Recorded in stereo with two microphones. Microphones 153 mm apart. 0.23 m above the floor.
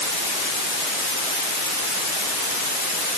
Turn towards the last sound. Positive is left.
No sound to turn to.